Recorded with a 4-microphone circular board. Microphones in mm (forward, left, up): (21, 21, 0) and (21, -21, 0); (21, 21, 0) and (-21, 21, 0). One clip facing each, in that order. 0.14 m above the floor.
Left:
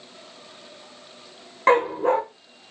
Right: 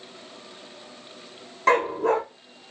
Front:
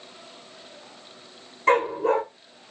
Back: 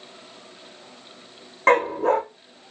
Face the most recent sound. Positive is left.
turn(degrees=150)